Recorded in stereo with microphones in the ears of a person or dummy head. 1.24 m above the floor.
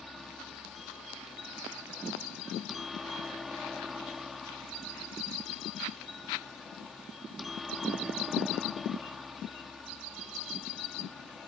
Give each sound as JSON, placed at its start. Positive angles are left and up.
{"t": 0.0, "sound": "a helicopter", "side_deg": 5}